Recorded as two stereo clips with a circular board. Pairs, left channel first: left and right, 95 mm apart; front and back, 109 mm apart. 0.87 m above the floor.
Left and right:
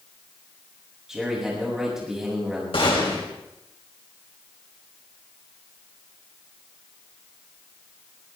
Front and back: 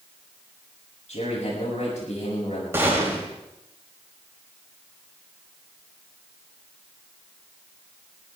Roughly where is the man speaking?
Ahead.